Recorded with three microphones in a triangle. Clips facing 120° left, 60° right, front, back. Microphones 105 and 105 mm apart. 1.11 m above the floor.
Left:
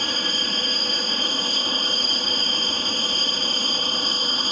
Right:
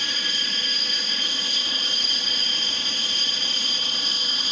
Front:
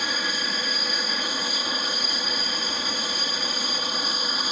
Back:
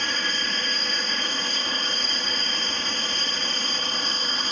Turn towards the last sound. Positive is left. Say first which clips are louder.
# left 5 dB, even
turn(degrees=80)